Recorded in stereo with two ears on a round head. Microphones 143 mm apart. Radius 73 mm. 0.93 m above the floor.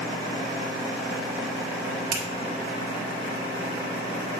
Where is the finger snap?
75° right (ahead or behind), 1.7 m.